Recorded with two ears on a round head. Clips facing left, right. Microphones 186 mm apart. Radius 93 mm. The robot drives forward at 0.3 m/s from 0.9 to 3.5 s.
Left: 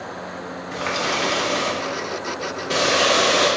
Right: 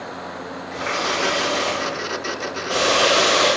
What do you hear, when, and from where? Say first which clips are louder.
0.7 s a running tap: even; 45° left (ahead or behind), 0.8 m; by 3.5 s 25° left (ahead or behind), 1.3 m